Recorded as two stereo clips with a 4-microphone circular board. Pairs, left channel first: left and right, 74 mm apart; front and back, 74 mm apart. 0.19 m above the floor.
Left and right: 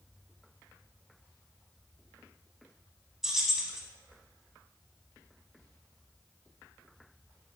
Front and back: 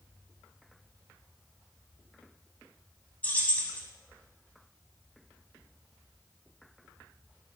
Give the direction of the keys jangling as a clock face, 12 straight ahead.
12 o'clock.